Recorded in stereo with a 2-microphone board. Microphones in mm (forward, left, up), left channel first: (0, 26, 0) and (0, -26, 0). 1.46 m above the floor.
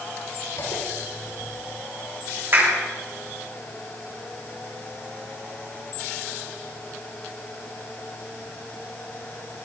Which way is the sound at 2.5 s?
40° right (ahead or behind).